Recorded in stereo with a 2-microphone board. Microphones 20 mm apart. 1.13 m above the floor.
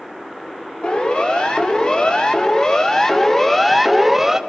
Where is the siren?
55° left (ahead or behind), 3 m; by 4.4 s 15° right (ahead or behind), 1.4 m.